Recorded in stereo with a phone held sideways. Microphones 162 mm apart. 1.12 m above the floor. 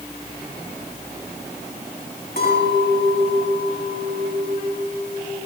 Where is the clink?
80° left, 6 m.